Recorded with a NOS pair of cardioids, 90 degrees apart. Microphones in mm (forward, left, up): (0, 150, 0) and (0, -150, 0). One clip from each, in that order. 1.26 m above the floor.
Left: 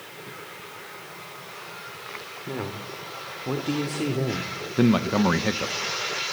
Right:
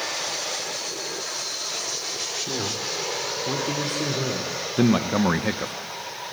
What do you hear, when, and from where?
2.5 s a man speaking: straight ahead, 3 m; by 4.6 s 35° left, 3 m
4.8 s a man speaking: straight ahead, 1.1 m